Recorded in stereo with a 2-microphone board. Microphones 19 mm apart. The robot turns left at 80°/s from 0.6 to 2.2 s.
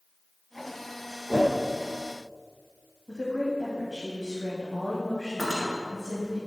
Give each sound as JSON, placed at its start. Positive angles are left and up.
{"t": 1.3, "sound": "a whoosh", "side_deg": 70, "distance_m": 1.3}
{"t": 3.1, "sound": "a woman speaking", "side_deg": 30, "distance_m": 1.2}
{"t": 5.4, "sound": "cutlery clinking", "side_deg": 25, "distance_m": 1.9}